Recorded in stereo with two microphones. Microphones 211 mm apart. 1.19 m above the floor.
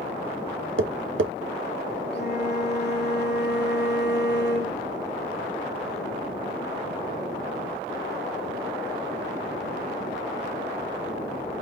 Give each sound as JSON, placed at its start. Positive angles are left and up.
{"t": 0.8, "sound": "tapping", "side_deg": -75, "distance_m": 0.5}
{"t": 2.1, "sound": "a flute", "side_deg": 55, "distance_m": 1.0}